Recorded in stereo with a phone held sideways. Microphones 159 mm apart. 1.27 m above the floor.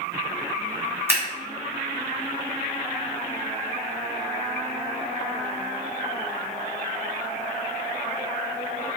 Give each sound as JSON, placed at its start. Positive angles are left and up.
{"t": 1.1, "sound": "scissors", "side_deg": -15, "distance_m": 2.0}